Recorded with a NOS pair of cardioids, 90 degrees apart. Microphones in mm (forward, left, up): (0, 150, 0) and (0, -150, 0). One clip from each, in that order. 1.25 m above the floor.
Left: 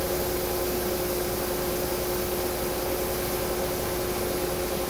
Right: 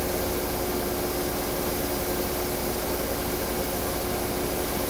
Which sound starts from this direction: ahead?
A fan, at 0.0 s.